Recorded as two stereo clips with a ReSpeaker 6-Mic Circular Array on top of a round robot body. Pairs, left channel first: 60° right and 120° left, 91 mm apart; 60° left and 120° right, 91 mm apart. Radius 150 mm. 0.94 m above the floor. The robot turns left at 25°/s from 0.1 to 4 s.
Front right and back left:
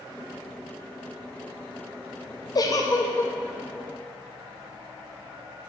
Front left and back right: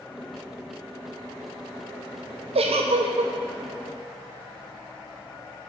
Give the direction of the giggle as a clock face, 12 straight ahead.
4 o'clock.